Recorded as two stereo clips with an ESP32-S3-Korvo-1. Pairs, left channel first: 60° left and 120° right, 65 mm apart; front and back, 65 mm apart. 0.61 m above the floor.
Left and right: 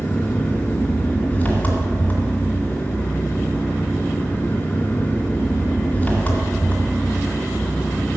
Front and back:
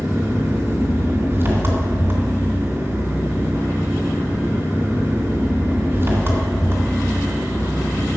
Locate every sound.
0.0 s an engine running: 125° left, 2 m